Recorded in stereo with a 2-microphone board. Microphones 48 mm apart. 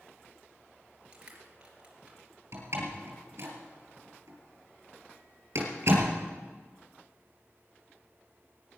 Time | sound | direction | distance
1.1 | crushing | 25° right (ahead or behind) | 3 m
2.5 | a door slam | 60° right (ahead or behind) | 4 m